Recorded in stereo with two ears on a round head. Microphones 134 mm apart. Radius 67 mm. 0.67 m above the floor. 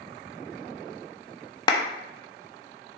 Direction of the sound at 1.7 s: 30° left (ahead or behind).